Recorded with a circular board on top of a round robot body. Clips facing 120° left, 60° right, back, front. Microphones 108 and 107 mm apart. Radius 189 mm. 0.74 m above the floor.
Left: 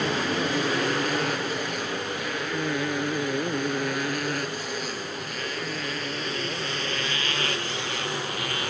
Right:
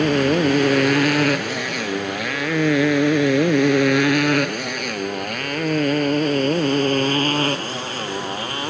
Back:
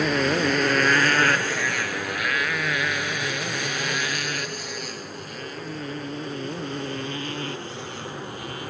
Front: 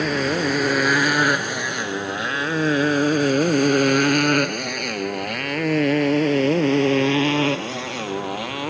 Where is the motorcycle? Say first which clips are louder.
Right 9 dB, front 1 dB; 90° right; by 8.7 s straight ahead.